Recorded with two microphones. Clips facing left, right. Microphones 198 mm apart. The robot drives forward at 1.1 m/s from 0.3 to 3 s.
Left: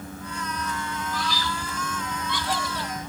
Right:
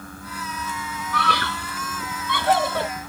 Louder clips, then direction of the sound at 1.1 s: Right 6 dB; 65° right (ahead or behind).